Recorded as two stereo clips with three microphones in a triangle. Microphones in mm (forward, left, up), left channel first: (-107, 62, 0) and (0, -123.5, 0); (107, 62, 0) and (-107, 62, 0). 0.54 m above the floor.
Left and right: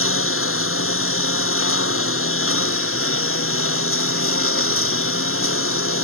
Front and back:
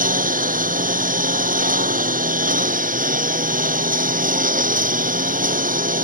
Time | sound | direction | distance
0.0 | a lawn mower | 130° left | ?